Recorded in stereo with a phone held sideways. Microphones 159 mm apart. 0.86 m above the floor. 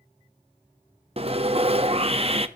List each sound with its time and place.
1.2 s sawing: 40° right (ahead or behind), 0.9 m